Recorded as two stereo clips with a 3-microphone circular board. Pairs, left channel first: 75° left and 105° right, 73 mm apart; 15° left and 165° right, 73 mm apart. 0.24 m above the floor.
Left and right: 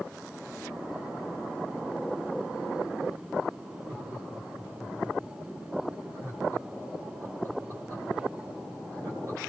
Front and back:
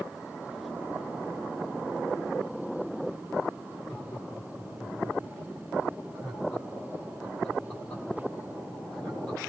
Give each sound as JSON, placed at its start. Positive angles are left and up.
{"t": 3.9, "sound": "laughter", "azimuth_deg": -60, "distance_m": 7.5}